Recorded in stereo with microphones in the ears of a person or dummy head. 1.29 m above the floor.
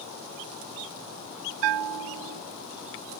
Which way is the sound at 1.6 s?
65° right (ahead or behind).